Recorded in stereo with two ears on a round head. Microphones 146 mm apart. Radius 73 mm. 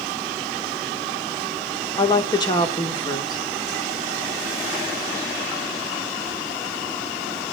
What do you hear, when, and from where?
2.0 s a woman speaking: 25° left (ahead or behind), 1.8 m